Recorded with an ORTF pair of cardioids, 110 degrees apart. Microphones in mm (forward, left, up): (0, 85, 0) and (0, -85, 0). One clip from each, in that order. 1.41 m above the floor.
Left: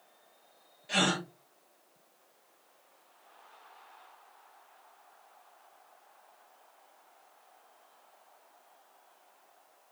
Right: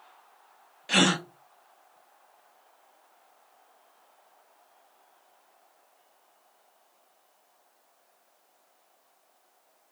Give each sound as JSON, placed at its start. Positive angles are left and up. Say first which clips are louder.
{"t": 0.9, "sound": "a gasp", "louder": "right 5 dB", "azimuth_deg": -50, "distance_m": 0.7}